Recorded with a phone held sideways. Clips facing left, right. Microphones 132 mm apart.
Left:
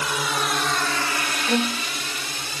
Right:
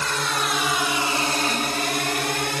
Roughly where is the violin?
Left.